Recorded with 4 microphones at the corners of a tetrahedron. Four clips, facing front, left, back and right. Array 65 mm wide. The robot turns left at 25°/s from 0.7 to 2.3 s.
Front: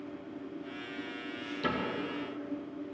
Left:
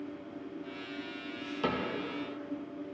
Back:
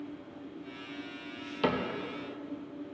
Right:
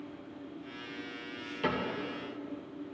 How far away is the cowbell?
I don't hear a cowbell.